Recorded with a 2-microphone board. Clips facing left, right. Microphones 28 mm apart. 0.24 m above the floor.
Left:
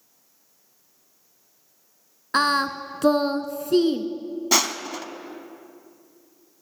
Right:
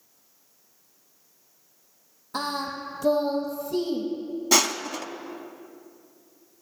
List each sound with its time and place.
2.3 s singing: 75° left (ahead or behind), 0.7 m
4.5 s crushing: 5° left (ahead or behind), 0.5 m